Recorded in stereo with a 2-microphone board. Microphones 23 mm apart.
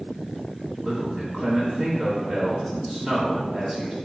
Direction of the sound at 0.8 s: 15° right (ahead or behind).